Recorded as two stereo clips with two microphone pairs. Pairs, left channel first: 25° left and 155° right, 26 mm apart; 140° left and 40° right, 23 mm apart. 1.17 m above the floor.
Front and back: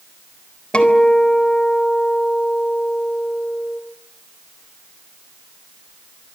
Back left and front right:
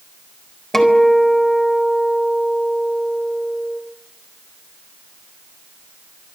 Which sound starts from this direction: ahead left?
A guitar, at 0.7 s.